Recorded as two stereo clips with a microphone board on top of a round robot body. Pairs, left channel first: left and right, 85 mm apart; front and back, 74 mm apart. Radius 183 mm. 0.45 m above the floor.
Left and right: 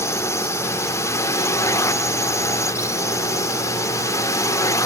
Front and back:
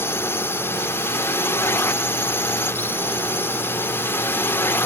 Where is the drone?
45° left; by 4.9 s 50° left.